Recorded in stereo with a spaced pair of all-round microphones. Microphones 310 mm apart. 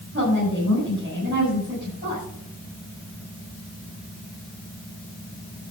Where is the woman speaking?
35° right (ahead or behind), 6.5 m.